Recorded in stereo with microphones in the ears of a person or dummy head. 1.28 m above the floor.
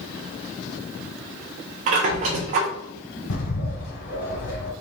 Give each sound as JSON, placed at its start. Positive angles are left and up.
{"t": 1.9, "sound": "a squeak", "side_deg": -40, "distance_m": 1.0}
{"t": 3.3, "sound": "a bird", "side_deg": 65, "distance_m": 2.5}